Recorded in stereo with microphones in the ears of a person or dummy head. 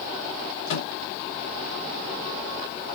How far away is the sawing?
No sawing in this recording.